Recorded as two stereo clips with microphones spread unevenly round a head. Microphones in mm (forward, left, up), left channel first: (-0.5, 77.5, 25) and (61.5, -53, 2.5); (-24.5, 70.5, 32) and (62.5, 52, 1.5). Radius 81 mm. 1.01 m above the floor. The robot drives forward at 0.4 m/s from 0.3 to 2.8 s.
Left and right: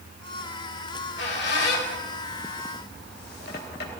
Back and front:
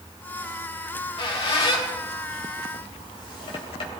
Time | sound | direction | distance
0.9 | a squeak | 145° left | 2.5 m